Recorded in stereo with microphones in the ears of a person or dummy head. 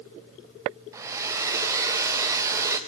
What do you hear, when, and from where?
0.9 s a hair dryer: 20° right (ahead or behind), 0.5 m